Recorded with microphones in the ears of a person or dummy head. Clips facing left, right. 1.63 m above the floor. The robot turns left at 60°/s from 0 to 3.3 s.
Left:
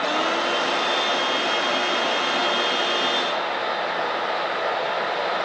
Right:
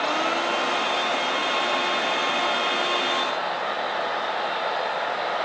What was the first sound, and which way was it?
Only background noise.